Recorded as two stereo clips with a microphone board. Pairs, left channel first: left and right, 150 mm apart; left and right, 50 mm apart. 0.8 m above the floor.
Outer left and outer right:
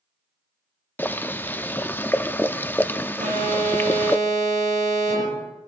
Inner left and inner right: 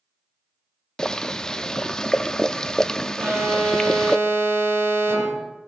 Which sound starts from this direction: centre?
Boiling, at 1.0 s.